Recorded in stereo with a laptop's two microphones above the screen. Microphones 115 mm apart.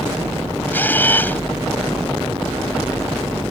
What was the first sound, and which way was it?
A camera shutter, 15° left (ahead or behind).